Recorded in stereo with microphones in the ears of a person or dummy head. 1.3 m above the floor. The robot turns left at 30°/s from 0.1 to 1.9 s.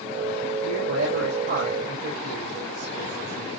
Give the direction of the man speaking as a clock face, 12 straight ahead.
3 o'clock.